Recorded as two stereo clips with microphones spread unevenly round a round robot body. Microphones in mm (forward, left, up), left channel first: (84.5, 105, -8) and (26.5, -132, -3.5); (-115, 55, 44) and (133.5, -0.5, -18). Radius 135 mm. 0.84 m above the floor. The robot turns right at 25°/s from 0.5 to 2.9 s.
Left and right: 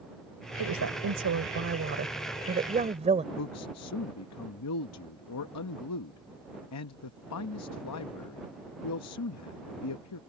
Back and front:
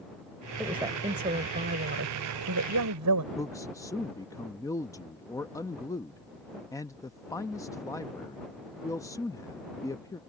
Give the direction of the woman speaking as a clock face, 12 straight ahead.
3 o'clock.